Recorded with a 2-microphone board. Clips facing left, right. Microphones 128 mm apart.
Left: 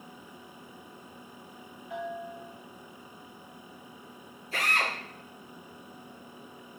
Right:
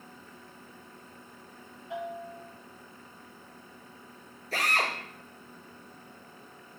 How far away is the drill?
About 4.5 m.